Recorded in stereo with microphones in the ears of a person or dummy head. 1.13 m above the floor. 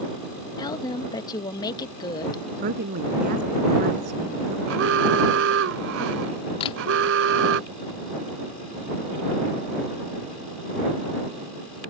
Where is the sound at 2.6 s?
55° right (ahead or behind).